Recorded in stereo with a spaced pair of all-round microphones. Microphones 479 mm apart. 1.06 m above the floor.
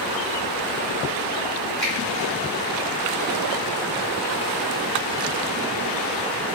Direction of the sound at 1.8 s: Centre (ahead or behind).